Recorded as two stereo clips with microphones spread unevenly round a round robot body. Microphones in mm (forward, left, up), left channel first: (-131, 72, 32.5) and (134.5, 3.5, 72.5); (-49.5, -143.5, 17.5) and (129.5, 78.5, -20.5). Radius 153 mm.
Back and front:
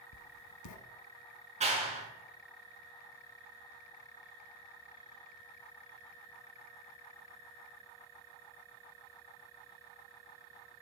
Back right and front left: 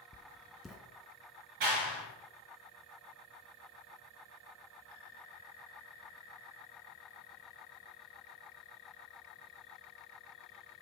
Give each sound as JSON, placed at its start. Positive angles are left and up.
{"t": 0.1, "sound": "writing", "azimuth_deg": 140, "distance_m": 1.2}
{"t": 1.6, "sound": "a clap", "azimuth_deg": 55, "distance_m": 5.5}